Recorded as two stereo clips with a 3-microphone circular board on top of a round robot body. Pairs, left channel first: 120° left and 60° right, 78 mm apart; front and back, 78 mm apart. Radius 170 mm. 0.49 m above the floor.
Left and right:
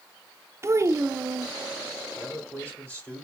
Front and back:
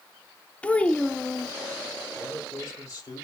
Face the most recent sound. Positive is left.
turn(degrees=50)